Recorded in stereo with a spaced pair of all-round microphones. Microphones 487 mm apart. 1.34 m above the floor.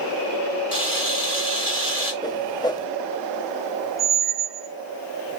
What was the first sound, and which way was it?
A camera shutter, 85° right.